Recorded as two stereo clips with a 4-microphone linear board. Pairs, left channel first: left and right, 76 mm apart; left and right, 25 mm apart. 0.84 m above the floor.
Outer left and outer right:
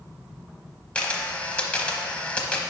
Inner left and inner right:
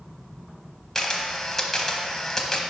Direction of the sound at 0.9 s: 15° left (ahead or behind).